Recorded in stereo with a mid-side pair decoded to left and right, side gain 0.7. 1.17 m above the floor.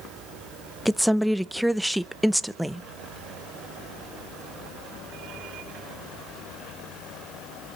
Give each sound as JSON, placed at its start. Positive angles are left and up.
{"t": 0.8, "sound": "a woman speaking", "azimuth_deg": 0, "distance_m": 0.8}